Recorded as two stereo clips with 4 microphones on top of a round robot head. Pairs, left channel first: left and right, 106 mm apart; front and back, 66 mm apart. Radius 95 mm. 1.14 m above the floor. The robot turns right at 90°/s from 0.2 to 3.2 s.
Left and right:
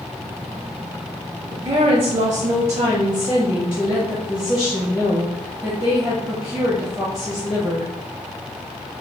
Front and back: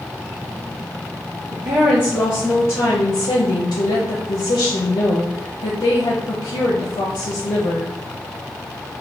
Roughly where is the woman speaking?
Behind.